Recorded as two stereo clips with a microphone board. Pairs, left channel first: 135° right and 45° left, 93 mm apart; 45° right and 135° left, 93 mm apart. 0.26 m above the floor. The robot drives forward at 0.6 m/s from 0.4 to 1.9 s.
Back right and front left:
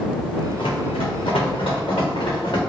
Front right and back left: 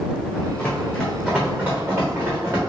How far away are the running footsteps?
About 1.3 m.